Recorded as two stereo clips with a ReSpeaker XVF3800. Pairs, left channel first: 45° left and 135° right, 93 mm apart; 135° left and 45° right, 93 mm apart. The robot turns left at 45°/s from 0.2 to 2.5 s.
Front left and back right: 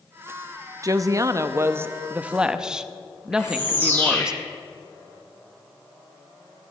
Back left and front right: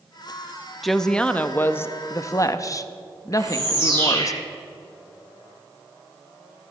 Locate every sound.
0.8 s a woman speaking: 135° right, 0.6 m; by 4.3 s 150° left, 0.6 m
3.3 s a bird: 20° right, 6 m